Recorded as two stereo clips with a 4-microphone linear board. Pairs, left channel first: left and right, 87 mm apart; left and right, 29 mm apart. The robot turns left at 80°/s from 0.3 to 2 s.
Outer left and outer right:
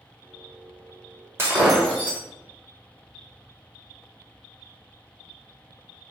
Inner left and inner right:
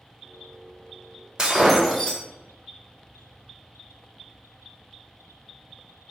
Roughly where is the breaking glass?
Behind right.